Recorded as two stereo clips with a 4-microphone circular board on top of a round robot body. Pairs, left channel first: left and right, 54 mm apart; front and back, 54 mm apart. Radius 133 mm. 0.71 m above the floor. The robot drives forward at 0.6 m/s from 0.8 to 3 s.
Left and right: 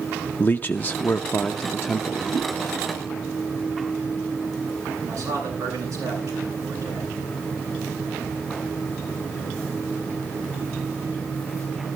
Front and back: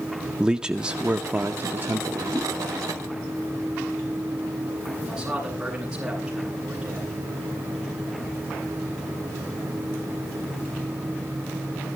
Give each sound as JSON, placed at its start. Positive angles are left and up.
{"t": 0.4, "sound": "a man speaking", "azimuth_deg": 115, "distance_m": 0.8}
{"t": 2.3, "sound": "a whoosh", "azimuth_deg": -55, "distance_m": 7.5}
{"t": 5.0, "sound": "a man speaking", "azimuth_deg": -100, "distance_m": 7.0}